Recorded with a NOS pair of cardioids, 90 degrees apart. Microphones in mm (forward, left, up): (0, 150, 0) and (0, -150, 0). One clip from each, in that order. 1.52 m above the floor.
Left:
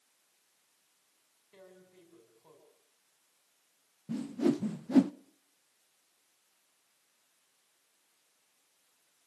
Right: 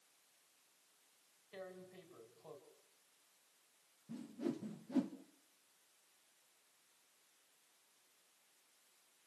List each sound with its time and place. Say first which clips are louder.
1.5 s tearing paper: right 4 dB; 40° right, 4.5 m
4.1 s a whoosh: left 13 dB; 55° left, 0.6 m